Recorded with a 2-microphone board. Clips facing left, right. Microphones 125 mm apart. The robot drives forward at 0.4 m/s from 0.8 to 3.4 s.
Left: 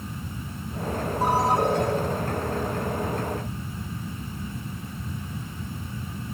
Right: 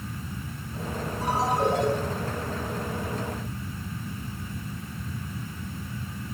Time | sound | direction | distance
1.2 | a ringtone | 60° left (ahead or behind) | 9.5 m